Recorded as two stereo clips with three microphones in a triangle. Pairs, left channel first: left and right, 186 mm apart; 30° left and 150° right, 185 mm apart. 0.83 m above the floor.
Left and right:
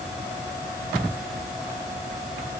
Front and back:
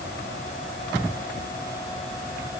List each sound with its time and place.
Only background noise.